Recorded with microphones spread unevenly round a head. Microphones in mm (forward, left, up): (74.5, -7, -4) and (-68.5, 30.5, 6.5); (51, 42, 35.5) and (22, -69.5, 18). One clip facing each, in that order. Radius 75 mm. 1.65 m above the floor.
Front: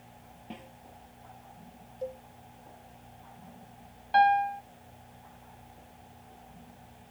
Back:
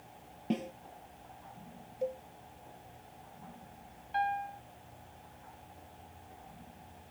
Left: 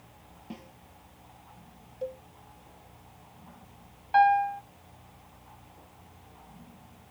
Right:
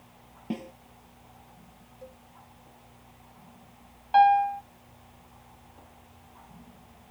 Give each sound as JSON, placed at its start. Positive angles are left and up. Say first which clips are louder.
{"t": 0.5, "sound": "a snare drum", "louder": "back 12 dB, right 10 dB", "azimuth_deg": -155}
{"t": 2.0, "sound": "a cowbell", "louder": "back 2 dB, left 12 dB", "azimuth_deg": 95}
{"t": 4.1, "sound": "a piano", "louder": "front 11 dB, right 2 dB", "azimuth_deg": -35}